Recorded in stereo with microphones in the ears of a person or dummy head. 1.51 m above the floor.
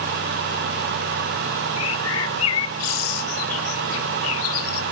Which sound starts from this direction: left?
A bird, at 1.8 s.